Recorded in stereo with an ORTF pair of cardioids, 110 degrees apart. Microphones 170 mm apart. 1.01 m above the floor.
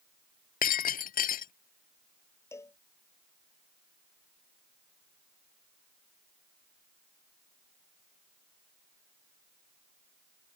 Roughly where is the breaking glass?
Ahead left.